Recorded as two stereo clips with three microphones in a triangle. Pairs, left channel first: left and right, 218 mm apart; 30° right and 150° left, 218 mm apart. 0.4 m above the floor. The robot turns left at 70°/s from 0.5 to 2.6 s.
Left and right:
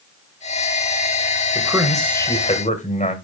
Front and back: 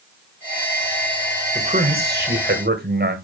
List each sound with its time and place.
1.6 s a man speaking: 155° right, 1.9 m; by 3.1 s 135° left, 1.9 m